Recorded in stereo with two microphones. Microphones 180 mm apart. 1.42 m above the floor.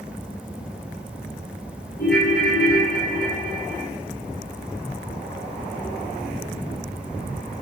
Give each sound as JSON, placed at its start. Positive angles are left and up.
{"t": 2.0, "sound": "a ringtone", "side_deg": 55, "distance_m": 1.8}